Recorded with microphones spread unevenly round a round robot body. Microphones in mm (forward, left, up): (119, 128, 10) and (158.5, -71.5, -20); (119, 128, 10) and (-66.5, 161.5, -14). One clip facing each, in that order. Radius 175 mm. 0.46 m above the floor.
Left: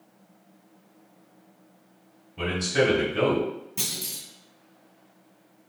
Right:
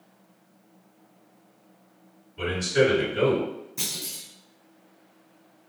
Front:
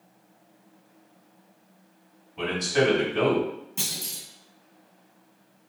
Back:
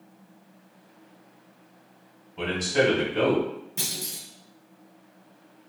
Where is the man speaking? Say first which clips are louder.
Right 2 dB, even; 90° left, 1.8 m.